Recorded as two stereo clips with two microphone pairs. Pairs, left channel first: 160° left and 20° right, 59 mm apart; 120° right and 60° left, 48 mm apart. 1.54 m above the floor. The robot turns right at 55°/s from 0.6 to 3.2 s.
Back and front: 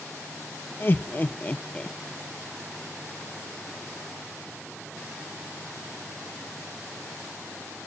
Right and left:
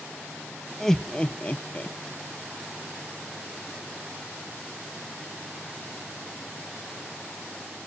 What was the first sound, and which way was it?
Laughter, 160° left.